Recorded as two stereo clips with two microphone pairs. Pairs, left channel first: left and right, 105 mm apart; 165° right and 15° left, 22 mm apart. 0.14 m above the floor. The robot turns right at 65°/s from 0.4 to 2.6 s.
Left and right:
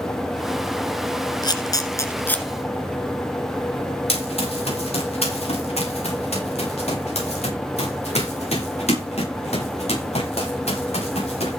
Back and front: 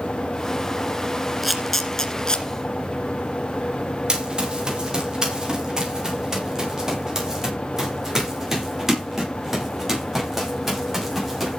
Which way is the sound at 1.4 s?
95° left.